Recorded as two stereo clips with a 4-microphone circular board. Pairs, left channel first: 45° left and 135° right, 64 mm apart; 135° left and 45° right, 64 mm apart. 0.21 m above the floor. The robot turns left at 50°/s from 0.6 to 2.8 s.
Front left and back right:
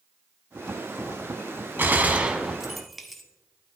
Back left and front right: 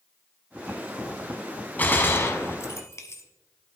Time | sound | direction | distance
1.8 | a gunshot | 175° right | 1.0 m